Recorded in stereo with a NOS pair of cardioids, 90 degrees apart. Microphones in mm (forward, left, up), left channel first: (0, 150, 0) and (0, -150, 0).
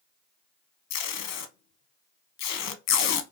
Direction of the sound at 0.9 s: 65° left.